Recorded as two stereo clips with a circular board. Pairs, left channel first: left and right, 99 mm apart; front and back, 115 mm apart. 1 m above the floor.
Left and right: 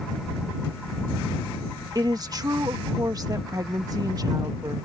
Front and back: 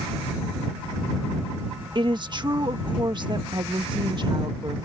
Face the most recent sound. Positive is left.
turn(degrees=-135)